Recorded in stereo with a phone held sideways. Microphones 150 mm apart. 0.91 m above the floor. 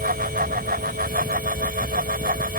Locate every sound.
0.0 s a fan: 80° right